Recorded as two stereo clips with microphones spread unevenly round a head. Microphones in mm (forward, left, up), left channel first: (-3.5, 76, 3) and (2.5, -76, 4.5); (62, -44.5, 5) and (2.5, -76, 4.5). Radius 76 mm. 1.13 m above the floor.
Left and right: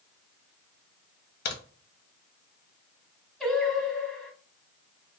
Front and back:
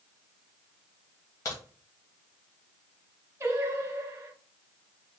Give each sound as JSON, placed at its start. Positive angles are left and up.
{"t": 1.4, "sound": "a crack", "azimuth_deg": 90, "distance_m": 1.2}
{"t": 3.4, "sound": "singing", "azimuth_deg": 180, "distance_m": 0.9}